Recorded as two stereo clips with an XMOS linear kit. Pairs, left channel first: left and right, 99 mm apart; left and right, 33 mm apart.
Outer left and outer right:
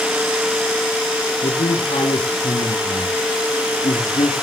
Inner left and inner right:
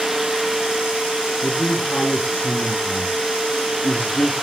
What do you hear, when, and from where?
1.4 s a man speaking: 65° left (ahead or behind), 5 m